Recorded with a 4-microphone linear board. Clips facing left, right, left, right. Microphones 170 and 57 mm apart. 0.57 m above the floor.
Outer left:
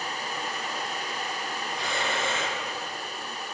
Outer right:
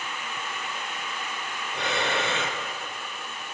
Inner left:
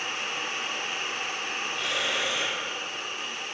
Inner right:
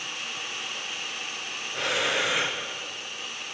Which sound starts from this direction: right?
Breathing, at 1.7 s.